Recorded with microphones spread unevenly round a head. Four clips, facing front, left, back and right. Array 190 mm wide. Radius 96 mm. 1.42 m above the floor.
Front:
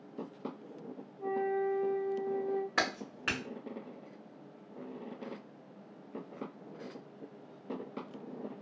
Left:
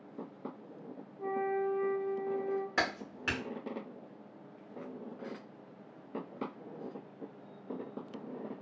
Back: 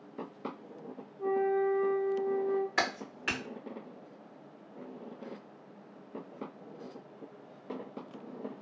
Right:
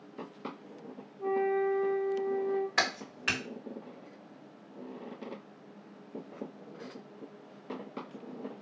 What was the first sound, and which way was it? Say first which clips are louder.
A flute: right 4 dB, back 4 dB; 140° left.